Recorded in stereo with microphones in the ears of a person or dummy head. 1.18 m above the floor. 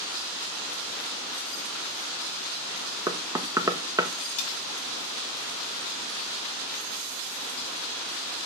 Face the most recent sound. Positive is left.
turn(degrees=35)  # may be behind; listen again after turning